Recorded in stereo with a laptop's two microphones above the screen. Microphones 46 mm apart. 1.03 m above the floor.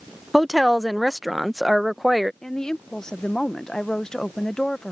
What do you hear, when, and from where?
0.3 s a woman speaking: centre (ahead or behind)
2.4 s a woman speaking: 15° left (ahead or behind)